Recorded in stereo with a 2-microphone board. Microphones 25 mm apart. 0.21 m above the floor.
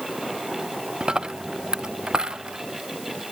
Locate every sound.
1.0 s a dropped coin: 30° right (ahead or behind)